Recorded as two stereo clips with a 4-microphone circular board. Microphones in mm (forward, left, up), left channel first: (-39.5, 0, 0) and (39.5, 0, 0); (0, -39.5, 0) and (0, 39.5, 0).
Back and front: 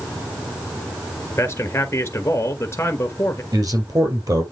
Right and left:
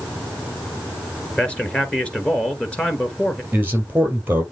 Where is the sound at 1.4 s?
160° right, 1.3 m.